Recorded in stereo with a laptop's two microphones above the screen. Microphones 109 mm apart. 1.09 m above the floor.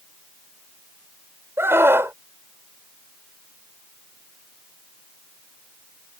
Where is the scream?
25° right (ahead or behind).